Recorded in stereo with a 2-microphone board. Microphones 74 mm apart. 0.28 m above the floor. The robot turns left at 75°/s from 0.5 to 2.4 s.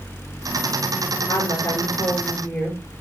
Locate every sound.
1.3 s a woman speaking: 90° left, 5 m; by 2.8 s 10° left, 5 m